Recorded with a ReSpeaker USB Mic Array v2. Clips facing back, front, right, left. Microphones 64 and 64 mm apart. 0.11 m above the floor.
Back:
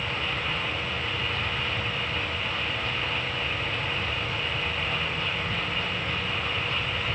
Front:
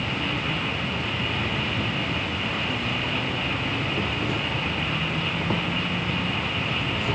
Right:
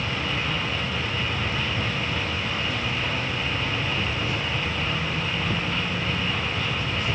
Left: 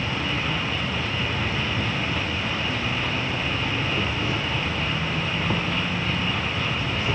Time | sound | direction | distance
0.0 | an insect | 25° left | ?